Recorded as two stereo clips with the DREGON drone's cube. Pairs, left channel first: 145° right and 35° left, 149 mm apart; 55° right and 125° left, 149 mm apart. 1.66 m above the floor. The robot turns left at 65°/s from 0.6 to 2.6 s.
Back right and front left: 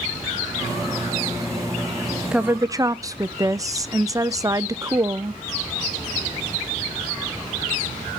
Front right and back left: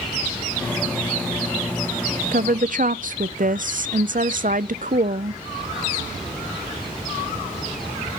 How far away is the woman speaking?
About 0.6 m.